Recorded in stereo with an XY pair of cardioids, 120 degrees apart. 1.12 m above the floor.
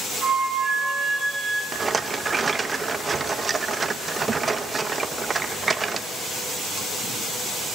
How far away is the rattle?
About 0.9 m.